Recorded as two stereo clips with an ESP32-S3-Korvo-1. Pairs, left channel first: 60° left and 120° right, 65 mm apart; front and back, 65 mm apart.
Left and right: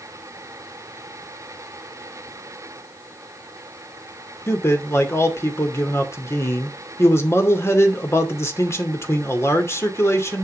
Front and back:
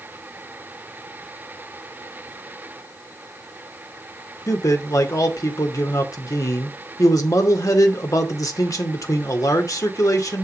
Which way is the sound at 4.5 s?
20° left.